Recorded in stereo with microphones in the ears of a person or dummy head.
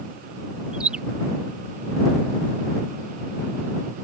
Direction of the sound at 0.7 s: 5° right (ahead or behind).